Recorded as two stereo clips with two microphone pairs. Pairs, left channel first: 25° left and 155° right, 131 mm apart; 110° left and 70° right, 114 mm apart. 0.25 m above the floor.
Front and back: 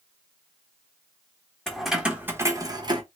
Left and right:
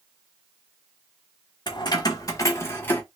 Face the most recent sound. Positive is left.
turn(degrees=175)